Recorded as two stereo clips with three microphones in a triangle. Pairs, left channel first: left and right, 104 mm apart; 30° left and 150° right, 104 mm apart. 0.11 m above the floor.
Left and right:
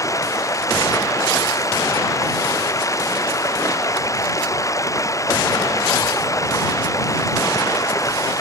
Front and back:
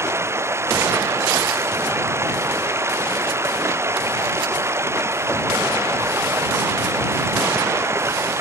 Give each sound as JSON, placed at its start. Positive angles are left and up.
{"t": 0.0, "sound": "running water", "azimuth_deg": 150}